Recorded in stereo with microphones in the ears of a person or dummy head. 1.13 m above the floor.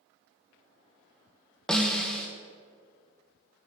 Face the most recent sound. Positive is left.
turn(degrees=0)  # may be behind; listen again after turning